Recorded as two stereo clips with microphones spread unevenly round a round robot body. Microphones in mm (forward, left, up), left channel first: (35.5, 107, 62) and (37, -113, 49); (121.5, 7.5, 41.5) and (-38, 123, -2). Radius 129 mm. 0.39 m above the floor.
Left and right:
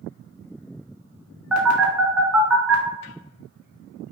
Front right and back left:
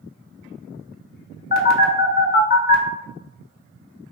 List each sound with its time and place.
1.5 s a phone buzzing: 5° right, 0.6 m